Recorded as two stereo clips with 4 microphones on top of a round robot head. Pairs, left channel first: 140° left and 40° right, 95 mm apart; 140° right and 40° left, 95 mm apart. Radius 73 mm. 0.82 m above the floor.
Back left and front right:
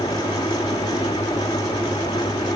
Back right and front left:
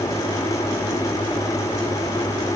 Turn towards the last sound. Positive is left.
No sound to turn to.